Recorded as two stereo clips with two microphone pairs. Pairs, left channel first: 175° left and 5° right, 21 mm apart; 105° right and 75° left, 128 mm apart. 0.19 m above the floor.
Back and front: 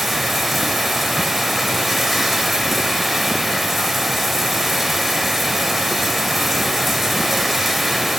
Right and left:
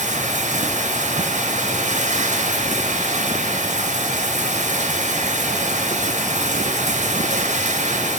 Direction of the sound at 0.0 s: 75° left.